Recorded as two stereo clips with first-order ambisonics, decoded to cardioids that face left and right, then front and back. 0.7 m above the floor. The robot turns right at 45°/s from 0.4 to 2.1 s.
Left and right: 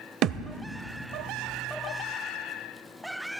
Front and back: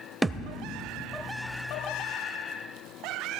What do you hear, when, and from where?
0.2 s a thud: 100° right, 0.5 m; by 0.6 s 90° right, 0.5 m